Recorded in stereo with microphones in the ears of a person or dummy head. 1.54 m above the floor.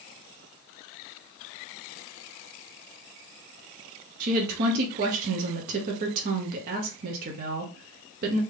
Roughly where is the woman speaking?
Right.